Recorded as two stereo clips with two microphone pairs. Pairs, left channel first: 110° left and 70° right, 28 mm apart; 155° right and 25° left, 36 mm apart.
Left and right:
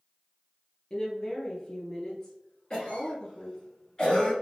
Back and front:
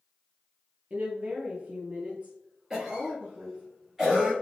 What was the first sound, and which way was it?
A woman speaking, 60° left.